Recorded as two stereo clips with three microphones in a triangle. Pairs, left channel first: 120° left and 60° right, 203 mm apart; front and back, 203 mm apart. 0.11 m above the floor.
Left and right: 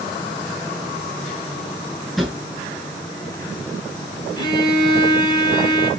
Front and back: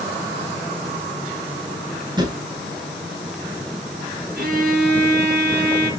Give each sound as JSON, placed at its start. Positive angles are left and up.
{"t": 2.2, "sound": "a drawer", "azimuth_deg": -150, "distance_m": 0.9}
{"t": 4.4, "sound": "a violin", "azimuth_deg": 180, "distance_m": 1.9}